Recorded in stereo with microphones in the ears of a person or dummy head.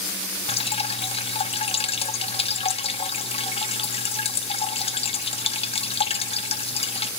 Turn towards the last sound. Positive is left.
turn(degrees=25)  # may be behind; listen again after turning